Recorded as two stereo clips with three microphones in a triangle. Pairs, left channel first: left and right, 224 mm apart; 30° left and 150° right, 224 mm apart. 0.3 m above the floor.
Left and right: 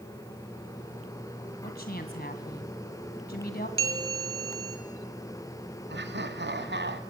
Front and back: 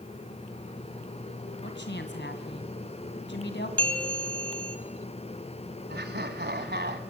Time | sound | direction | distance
1.6 | a woman speaking | 55° left | 1.8 m
3.8 | a bell | 110° left | 2 m
5.9 | laughter | 115° right | 2 m